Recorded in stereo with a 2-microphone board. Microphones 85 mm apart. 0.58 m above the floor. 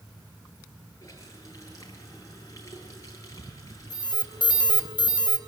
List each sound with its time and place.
1.0 s a running tap: 40° left (ahead or behind), 7.5 m
3.9 s an alarm: 60° left (ahead or behind), 3.5 m